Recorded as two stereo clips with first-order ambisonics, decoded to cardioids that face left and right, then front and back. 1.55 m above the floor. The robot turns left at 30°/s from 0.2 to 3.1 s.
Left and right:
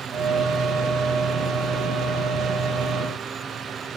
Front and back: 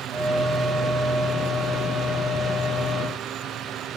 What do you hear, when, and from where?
Only background noise.